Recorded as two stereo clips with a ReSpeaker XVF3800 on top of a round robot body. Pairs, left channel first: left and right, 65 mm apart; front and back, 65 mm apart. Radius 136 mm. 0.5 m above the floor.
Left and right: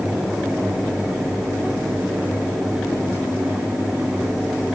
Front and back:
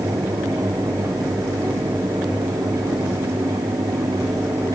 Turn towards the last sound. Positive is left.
No sound to turn to.